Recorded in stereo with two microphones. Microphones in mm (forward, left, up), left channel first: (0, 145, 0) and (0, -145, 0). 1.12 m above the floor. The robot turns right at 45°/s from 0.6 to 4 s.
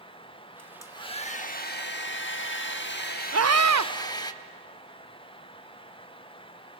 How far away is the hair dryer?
About 0.9 m.